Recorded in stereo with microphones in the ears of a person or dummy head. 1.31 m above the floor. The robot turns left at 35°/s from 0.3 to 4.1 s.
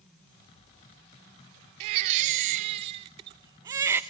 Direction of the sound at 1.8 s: 30° right (ahead or behind).